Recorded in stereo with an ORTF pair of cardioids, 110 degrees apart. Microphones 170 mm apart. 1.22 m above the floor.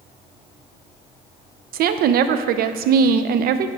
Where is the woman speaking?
65° right, 0.6 m.